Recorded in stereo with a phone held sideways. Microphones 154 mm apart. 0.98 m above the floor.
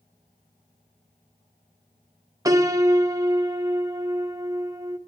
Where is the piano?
20° right (ahead or behind), 0.7 m.